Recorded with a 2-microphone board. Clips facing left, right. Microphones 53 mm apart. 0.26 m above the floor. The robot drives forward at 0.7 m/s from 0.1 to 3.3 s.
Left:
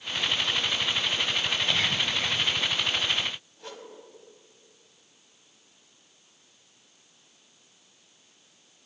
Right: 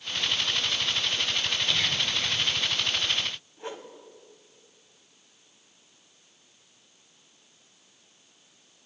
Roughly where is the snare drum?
I don't hear a snare drum.